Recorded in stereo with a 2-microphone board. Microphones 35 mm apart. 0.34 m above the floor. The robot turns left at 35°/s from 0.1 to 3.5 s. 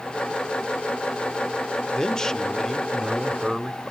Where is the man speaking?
55° left, 0.9 m; by 3.9 s straight ahead, 0.9 m.